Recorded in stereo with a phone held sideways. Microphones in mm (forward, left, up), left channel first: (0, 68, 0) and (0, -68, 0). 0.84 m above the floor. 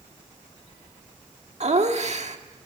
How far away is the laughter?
About 1.4 m.